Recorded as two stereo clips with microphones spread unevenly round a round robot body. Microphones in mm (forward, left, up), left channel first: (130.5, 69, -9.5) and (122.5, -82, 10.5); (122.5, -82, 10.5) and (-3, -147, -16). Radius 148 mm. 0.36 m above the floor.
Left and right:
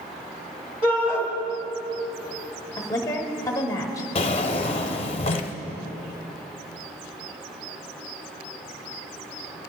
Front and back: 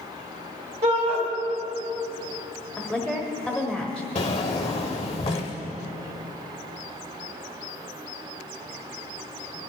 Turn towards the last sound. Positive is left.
turn(degrees=80)